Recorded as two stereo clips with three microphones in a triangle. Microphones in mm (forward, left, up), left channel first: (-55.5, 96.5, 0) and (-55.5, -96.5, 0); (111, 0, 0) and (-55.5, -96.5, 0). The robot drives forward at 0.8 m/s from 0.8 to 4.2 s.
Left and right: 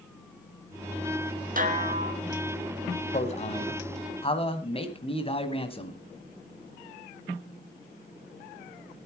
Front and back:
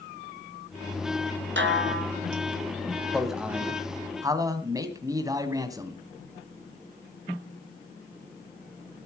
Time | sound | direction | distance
1.6 | a snare drum | 135° right | 1.7 m
3.1 | a man speaking | 120° left | 1.8 m